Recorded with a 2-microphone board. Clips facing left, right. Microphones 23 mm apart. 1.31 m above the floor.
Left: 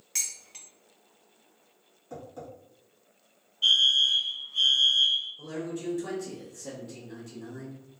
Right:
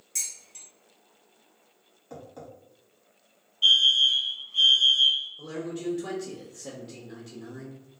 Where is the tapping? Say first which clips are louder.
Left 1 dB; 30° right (ahead or behind), 1.8 m.